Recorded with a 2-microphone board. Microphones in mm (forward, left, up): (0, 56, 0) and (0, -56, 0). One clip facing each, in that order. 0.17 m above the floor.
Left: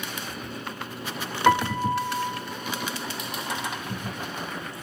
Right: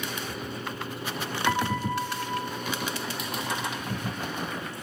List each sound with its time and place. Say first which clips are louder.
1.5 s a piano: left 6 dB; 65° left (ahead or behind), 0.8 m